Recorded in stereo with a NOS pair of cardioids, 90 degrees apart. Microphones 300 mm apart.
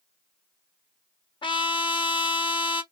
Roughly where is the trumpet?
Ahead.